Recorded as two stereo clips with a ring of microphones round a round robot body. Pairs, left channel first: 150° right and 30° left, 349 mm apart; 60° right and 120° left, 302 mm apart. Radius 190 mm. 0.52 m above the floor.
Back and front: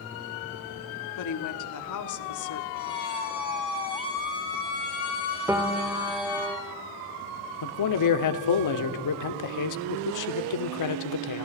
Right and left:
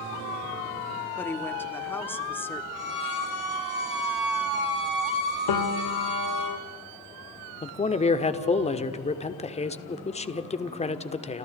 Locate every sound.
1.1 s a woman speaking: 140° right, 1.8 m
2.7 s a violin: 95° right, 8 m
5.5 s a piano: 55° right, 1.6 m
7.6 s a man speaking: 125° right, 1.6 m